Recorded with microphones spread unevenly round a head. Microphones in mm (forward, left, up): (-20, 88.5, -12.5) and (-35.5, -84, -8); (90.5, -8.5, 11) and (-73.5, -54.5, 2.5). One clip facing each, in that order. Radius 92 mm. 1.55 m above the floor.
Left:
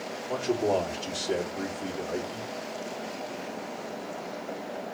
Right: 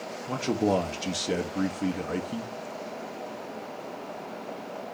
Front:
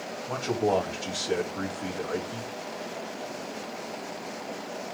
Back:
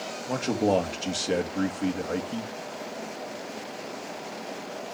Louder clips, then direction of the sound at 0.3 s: Right 1 dB, back 2 dB; 100° right.